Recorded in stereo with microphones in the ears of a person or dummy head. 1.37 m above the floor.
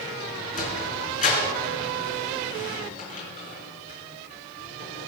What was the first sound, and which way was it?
A sliding door, 45° left (ahead or behind).